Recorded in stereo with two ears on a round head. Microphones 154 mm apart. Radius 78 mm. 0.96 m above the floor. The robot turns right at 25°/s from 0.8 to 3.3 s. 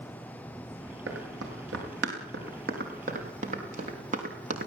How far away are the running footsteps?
About 8.5 m.